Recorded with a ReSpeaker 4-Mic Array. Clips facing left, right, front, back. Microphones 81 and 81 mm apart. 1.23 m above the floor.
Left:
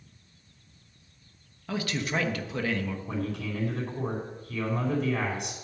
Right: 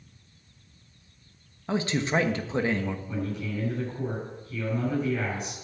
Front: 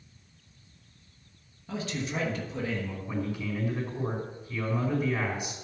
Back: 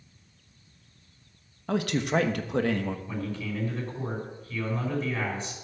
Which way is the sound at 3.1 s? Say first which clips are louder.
Even, front 1 dB; 75° left.